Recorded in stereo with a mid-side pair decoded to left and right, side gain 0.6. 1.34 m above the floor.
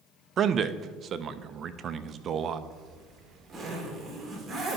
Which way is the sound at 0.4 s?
40° right.